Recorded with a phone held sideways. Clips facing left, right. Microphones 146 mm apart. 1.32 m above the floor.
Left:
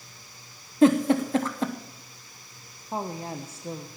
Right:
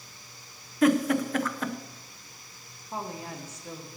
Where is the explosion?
No explosion in this recording.